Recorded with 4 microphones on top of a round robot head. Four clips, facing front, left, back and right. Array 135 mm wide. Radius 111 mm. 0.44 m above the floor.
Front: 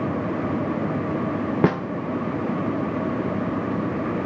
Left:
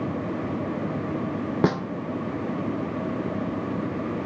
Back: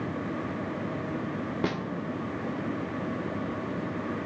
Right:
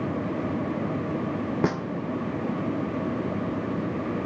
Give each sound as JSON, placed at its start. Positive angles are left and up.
{"t": 1.6, "sound": "a snare drum", "azimuth_deg": 20, "distance_m": 0.5}